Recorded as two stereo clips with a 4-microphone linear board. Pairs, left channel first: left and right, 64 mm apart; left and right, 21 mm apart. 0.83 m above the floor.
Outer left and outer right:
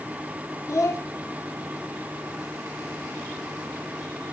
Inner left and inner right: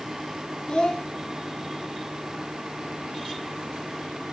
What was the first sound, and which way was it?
A child speaking, 50° left (ahead or behind).